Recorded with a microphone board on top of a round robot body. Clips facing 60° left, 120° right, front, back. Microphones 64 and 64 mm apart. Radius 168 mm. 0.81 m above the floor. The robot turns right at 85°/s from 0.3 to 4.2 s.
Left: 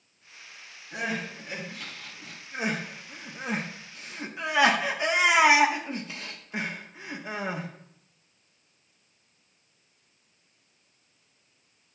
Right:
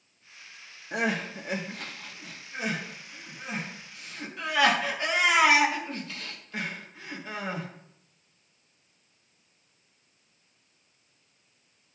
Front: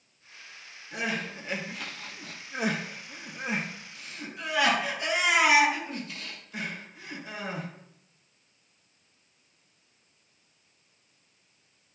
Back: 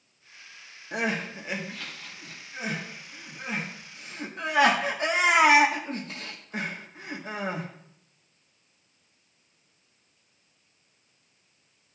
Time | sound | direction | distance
0.9 | crying | 150° right | 1.4 m